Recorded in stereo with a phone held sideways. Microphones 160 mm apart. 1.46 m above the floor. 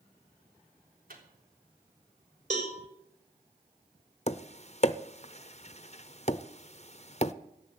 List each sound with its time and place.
1.1 s a microwave: 65° right (ahead or behind), 3.5 m
2.5 s a cowbell: 50° right (ahead or behind), 3.5 m
4.3 s tapping: 45° left (ahead or behind), 0.6 m